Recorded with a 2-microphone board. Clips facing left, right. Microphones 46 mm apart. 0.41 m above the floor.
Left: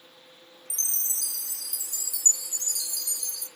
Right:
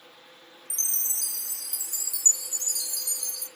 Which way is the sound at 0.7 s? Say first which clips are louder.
Even; 55° left (ahead or behind).